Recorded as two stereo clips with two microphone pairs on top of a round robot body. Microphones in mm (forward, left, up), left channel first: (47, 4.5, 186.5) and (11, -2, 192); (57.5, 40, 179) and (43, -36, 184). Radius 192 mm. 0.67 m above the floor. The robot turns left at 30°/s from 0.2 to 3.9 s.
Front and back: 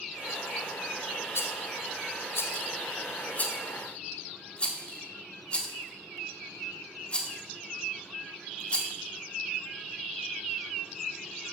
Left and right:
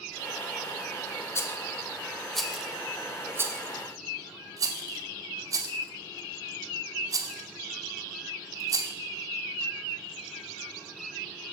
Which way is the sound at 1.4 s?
20° left.